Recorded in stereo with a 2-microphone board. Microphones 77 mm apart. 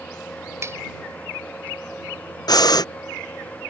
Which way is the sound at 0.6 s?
35° right (ahead or behind).